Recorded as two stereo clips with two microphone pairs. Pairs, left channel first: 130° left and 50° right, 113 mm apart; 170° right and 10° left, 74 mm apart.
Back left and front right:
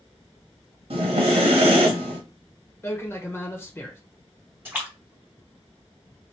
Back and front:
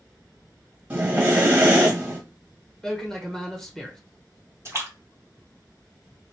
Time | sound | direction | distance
0.9 | breathing | 55° right | 1.2 m
2.8 | a man speaking | 110° left | 1.0 m
4.7 | a splash | 10° left | 1.6 m